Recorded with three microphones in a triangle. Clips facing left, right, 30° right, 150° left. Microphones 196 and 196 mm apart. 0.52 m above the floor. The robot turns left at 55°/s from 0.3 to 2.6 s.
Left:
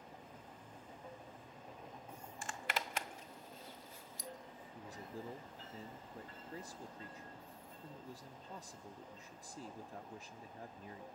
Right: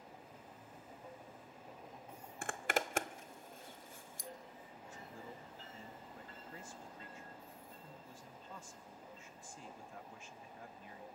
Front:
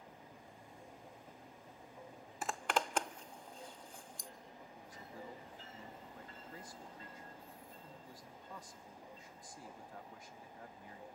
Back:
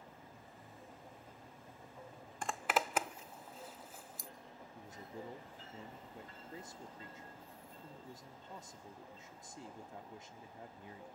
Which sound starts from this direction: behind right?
A zipper, at 2.4 s.